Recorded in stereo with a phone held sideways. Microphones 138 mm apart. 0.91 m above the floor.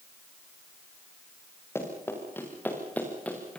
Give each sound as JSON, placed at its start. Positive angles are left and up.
{"t": 1.8, "sound": "running footsteps", "side_deg": 20, "distance_m": 8.5}